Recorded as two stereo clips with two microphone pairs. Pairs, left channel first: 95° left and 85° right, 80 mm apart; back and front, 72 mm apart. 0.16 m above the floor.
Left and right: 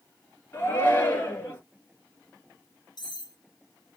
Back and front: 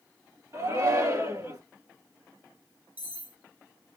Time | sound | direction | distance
0.5 | a shout | 30° left | 3 m
3.0 | cutlery clinking | 65° left | 2 m